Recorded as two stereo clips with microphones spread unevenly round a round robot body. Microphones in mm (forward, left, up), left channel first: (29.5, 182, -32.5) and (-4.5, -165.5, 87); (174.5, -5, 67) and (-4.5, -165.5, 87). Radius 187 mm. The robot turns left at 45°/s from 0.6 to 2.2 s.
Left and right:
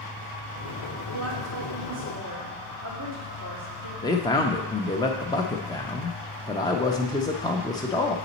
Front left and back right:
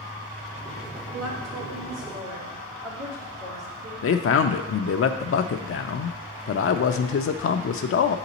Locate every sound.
1.1 s a woman speaking: 110° right, 2.5 m; by 3.9 s 155° right, 2.5 m
4.0 s a man speaking: 20° left, 0.5 m